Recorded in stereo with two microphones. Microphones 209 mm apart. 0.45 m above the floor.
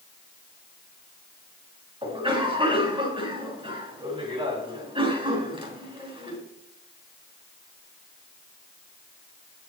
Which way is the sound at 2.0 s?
25° right (ahead or behind).